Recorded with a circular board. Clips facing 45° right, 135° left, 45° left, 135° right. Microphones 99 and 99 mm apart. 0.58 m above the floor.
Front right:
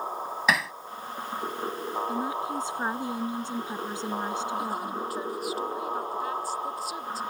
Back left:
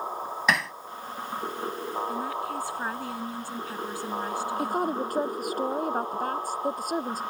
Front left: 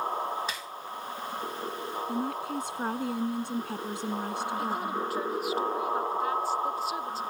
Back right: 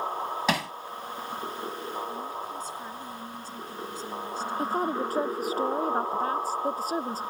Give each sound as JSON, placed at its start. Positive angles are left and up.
{"t": 0.5, "sound": "hammering", "azimuth_deg": -135}
{"t": 2.1, "sound": "a woman speaking", "azimuth_deg": 25}
{"t": 4.6, "sound": "a woman speaking", "azimuth_deg": 175}